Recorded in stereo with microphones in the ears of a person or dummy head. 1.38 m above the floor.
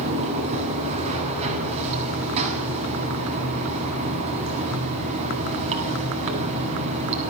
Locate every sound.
0.0 s running water: 40° right (ahead or behind), 8 m